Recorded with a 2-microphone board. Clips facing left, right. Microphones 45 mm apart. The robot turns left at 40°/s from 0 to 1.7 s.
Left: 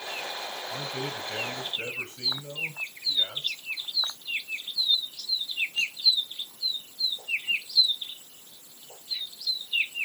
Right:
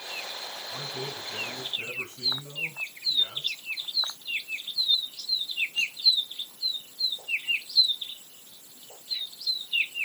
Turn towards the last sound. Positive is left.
turn(degrees=110)